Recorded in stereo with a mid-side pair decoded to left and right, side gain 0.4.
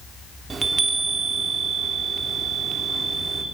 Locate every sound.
0.5 s a chime: 40° right, 3 m